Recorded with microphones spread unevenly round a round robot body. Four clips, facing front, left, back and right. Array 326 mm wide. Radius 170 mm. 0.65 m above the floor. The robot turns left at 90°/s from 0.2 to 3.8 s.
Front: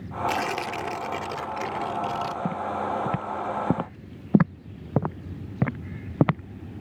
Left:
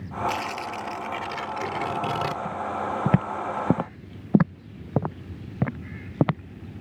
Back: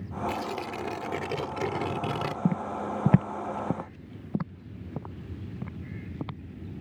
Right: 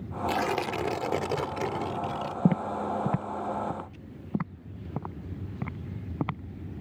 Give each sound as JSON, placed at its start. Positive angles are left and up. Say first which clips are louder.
{"t": 0.3, "sound": "tearing paper", "louder": "right 6 dB, front 6 dB", "azimuth_deg": -35}
{"t": 2.5, "sound": "footsteps", "louder": "right 1 dB, front 2 dB", "azimuth_deg": -90}